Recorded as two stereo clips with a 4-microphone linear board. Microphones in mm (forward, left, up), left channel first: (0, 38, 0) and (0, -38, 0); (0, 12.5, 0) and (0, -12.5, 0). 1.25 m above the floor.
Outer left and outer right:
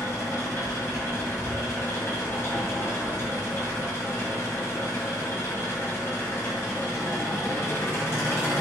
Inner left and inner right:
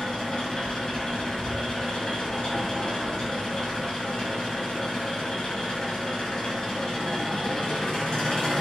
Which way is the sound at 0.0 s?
35° left (ahead or behind).